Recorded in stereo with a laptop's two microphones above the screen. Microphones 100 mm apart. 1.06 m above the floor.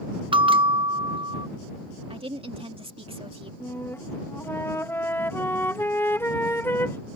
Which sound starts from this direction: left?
A flute, at 3.6 s.